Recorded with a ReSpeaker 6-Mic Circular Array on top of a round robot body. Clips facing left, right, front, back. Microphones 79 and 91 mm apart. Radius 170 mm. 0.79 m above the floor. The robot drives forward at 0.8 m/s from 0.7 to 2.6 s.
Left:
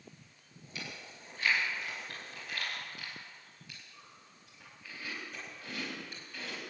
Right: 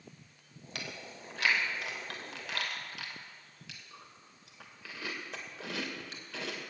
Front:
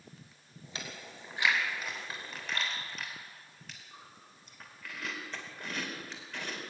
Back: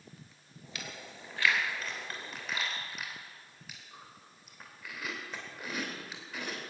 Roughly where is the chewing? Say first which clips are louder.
Right 2 dB, even; ahead right.